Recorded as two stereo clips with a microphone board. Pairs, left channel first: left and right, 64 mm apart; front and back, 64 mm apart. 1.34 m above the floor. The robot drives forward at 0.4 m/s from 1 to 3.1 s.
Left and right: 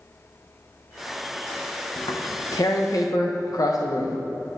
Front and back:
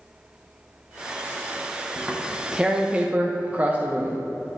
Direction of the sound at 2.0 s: 85° left.